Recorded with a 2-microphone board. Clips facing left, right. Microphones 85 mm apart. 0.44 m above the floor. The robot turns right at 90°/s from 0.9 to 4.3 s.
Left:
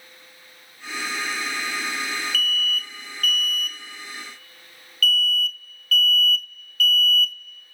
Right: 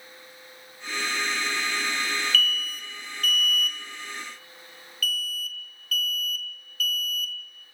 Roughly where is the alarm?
Centre.